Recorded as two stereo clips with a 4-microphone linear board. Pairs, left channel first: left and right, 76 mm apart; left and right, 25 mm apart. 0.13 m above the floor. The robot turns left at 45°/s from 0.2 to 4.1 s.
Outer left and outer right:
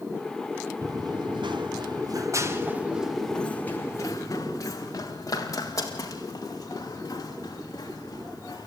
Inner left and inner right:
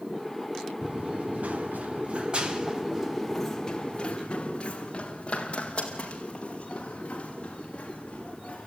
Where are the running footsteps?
50° right (ahead or behind), 1.0 m; by 8.7 s 50° left (ahead or behind), 8 m.